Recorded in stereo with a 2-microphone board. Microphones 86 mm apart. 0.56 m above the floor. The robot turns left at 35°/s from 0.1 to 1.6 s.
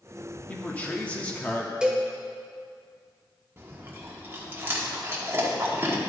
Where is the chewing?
30° right (ahead or behind), 1.2 m.